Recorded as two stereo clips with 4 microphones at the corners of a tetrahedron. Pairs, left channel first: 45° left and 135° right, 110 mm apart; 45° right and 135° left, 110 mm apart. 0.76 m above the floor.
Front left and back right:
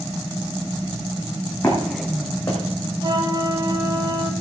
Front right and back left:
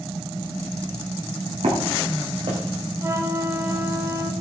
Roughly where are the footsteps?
Behind left.